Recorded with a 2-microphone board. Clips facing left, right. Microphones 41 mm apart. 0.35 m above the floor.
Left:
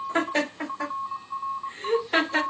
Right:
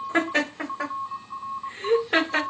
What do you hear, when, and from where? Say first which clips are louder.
0.1 s laughter: right 2 dB; 40° right (ahead or behind), 1.3 m